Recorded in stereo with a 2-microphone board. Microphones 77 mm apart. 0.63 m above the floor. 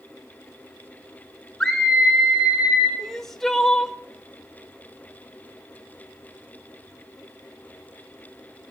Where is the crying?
5° left (ahead or behind), 0.7 m.